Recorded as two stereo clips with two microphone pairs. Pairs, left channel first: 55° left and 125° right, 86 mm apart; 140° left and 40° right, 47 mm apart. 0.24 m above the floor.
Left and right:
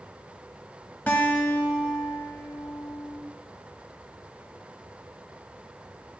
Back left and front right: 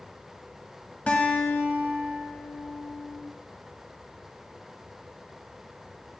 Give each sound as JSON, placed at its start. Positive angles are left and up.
{"t": 1.1, "sound": "a guitar", "azimuth_deg": 105, "distance_m": 0.8}